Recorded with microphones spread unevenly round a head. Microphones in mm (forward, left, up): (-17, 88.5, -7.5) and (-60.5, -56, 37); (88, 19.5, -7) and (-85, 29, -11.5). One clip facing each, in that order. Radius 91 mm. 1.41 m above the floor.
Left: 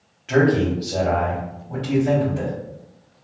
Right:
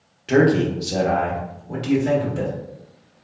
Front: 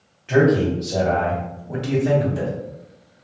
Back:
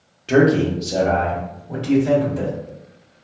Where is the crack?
I don't hear a crack.